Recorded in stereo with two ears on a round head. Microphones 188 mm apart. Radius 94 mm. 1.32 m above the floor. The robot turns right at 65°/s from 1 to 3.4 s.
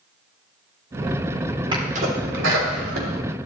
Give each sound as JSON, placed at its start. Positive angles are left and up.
{"t": 1.7, "sound": "a sneeze", "side_deg": -25, "distance_m": 4.5}